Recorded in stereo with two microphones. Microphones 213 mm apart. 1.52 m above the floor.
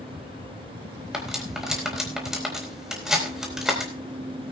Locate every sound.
1.1 s cutlery clinking: centre (ahead or behind), 4 m